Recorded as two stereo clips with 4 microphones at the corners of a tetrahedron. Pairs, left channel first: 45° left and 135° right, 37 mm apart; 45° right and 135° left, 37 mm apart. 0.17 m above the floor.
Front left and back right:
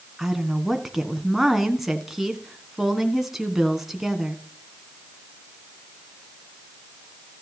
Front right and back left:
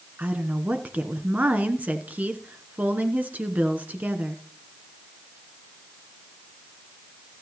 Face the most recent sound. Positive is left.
turn(degrees=145)